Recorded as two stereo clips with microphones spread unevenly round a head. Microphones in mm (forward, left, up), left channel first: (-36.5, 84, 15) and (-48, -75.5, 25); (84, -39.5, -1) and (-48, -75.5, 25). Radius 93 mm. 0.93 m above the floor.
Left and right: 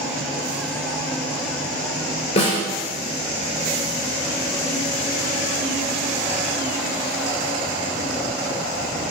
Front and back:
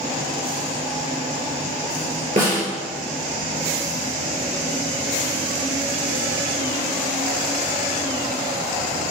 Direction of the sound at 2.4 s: 135° left.